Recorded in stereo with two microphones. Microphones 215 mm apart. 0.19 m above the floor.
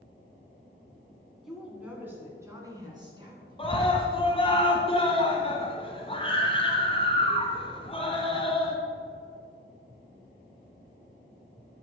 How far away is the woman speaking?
About 1.8 m.